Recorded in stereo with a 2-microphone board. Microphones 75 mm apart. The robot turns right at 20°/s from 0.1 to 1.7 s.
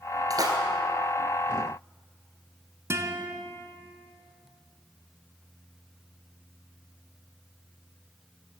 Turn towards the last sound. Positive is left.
turn(degrees=-35)  # may be behind; listen again after turning